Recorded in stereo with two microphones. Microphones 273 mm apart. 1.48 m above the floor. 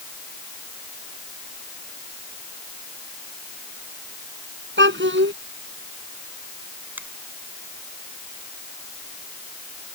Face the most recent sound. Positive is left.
turn(degrees=-5)  # may be behind; listen again after turning